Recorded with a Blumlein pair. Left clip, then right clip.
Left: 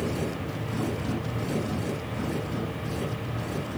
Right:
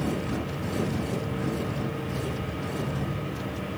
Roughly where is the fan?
Ahead right.